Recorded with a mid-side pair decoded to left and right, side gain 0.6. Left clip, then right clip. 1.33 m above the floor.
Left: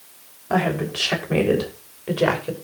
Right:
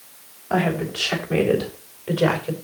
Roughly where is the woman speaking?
Ahead left.